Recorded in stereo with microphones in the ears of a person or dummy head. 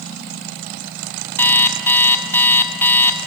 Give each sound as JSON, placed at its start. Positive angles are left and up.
{"t": 1.4, "sound": "an alarm clock", "side_deg": 10, "distance_m": 1.0}